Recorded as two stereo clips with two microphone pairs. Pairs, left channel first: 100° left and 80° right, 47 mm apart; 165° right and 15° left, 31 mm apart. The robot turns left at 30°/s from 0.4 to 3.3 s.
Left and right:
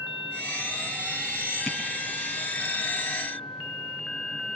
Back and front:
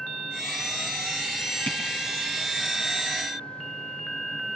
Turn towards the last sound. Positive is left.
turn(degrees=140)